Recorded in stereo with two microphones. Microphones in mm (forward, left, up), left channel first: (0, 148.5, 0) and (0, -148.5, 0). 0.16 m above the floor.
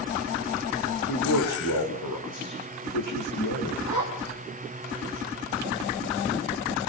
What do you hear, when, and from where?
1.1 s a man speaking: 80° left, 6.5 m; by 3.8 s 85° left, 9 m
3.9 s a zipper: 70° left (ahead or behind), 4.5 m